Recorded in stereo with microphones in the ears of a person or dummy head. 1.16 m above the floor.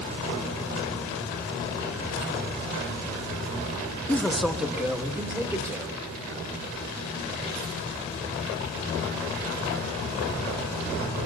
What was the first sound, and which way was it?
A man speaking, 10° left (ahead or behind).